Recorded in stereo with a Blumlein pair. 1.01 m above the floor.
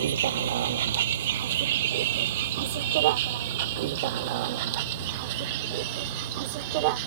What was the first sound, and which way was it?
A vehicle, 60° right.